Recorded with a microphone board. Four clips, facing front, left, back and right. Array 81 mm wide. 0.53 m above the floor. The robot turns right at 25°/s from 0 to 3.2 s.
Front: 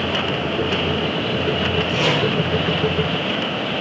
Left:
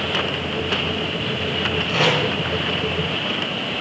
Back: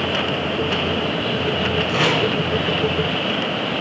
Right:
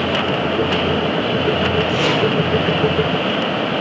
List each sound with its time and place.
1.9 s tape being pulled: 145° left, 5 m; by 2.2 s 150° left, 5 m